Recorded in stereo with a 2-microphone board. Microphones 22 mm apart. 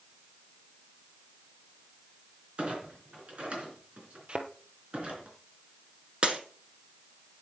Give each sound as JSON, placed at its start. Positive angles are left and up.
{"t": 2.6, "sound": "a clunk", "side_deg": -60, "distance_m": 3.5}
{"t": 4.3, "sound": "a thud", "side_deg": -45, "distance_m": 1.4}
{"t": 6.2, "sound": "breaking glass", "side_deg": -50, "distance_m": 1.6}